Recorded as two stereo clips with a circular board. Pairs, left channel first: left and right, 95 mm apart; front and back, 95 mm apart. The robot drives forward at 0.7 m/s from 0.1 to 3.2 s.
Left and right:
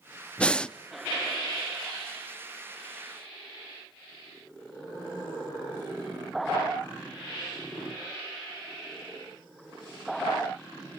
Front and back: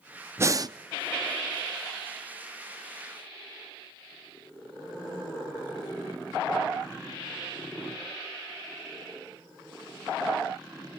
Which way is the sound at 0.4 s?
155° left.